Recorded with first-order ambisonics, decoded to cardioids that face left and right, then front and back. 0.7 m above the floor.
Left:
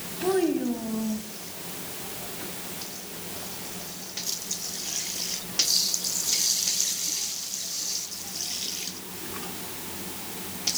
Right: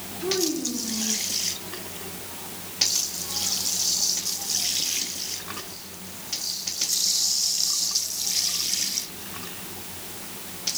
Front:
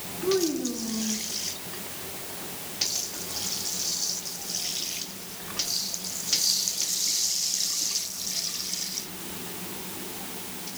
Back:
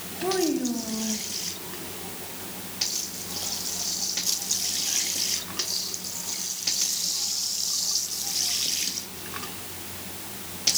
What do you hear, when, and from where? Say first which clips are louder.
0.2 s a child speaking: left 1 dB, even; 150° left, 3 m; by 1.2 s 125° left, 2.5 m